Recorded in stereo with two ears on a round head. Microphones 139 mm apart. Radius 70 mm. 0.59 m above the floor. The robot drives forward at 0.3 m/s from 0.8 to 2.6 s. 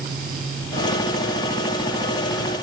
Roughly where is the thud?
I don't hear a thud.